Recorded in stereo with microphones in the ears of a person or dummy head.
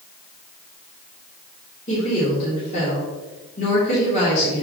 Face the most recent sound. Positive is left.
turn(degrees=40)  # may be behind; listen again after turning